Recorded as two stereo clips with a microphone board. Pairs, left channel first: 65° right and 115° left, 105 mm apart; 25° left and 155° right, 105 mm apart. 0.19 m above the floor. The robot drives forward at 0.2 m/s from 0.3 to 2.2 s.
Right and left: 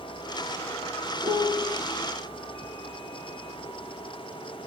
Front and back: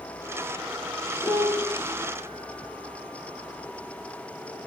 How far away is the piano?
About 1.8 m.